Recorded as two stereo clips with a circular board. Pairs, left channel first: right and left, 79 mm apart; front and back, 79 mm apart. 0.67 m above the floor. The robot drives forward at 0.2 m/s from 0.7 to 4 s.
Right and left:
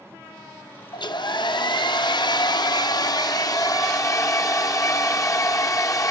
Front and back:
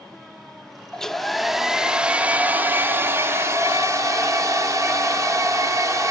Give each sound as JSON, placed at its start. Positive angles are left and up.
{"t": 0.9, "sound": "a hair dryer", "azimuth_deg": -80, "distance_m": 0.6}